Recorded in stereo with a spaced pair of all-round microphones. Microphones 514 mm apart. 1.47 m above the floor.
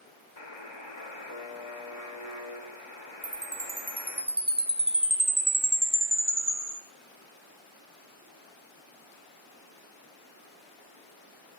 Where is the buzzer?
55° left (ahead or behind), 1.4 m.